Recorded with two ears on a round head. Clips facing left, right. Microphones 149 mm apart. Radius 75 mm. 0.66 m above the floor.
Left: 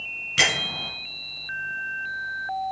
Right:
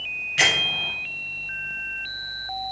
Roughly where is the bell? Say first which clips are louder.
Right 1 dB; left.